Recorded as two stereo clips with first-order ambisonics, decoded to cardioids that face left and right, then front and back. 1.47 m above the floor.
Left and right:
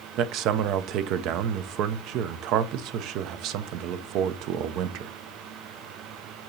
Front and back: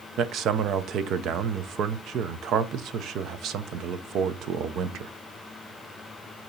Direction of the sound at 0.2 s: 130° right.